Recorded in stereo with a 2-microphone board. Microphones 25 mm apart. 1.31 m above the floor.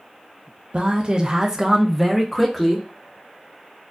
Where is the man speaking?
45° right (ahead or behind), 0.6 m; by 2.9 s 10° left (ahead or behind), 1.1 m.